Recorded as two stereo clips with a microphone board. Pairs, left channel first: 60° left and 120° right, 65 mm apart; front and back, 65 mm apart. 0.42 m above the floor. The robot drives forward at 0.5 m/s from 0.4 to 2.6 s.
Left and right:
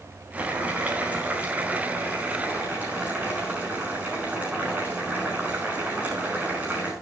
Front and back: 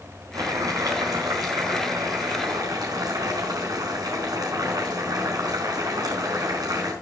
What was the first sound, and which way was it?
Boiling, 175° left.